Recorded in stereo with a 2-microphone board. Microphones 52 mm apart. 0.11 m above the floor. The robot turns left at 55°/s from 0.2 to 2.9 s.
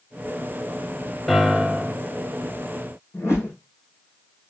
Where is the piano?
5° right, 0.6 m; by 2.0 s 45° right, 0.6 m.